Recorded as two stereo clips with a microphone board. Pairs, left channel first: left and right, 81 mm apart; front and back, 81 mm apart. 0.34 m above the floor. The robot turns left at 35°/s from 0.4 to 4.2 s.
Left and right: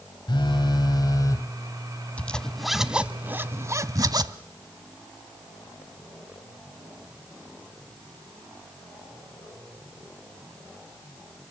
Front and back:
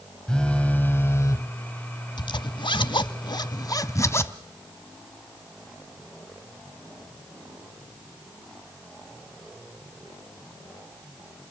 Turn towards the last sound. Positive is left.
turn(degrees=-55)